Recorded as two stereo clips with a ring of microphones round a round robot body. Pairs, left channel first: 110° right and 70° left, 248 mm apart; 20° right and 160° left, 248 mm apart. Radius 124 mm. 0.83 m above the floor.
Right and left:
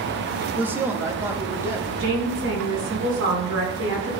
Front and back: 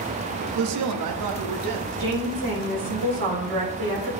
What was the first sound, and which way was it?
A woman speaking, 150° left.